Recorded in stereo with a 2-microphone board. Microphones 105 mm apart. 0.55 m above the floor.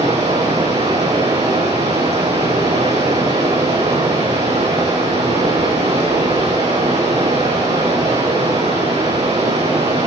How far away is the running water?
About 7 m.